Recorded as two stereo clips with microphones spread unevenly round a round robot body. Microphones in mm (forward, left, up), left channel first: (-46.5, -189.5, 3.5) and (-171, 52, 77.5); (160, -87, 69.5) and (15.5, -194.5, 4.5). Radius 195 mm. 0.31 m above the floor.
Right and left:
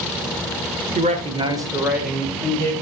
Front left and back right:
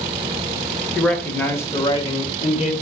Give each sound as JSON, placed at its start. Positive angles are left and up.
{"t": 0.9, "sound": "a man speaking", "azimuth_deg": 180, "distance_m": 1.6}